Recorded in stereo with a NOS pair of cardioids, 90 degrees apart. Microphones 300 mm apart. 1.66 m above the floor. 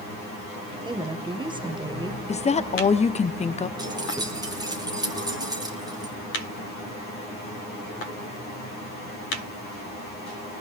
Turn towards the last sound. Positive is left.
turn(degrees=-15)